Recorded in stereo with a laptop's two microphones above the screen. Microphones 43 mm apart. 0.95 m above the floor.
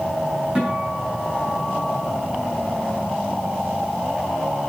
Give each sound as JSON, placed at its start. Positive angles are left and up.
{"t": 0.6, "sound": "a guitar", "side_deg": -20, "distance_m": 6.0}